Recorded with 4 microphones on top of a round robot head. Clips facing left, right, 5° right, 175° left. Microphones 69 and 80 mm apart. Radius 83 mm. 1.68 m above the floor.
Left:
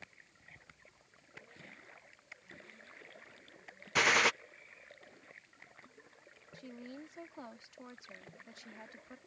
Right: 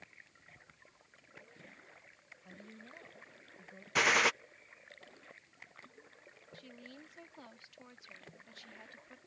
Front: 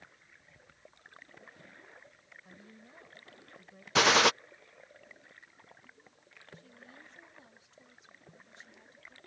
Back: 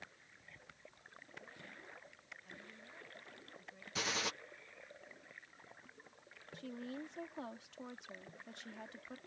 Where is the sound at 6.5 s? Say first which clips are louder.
Left 5 dB, back 11 dB; 155° left.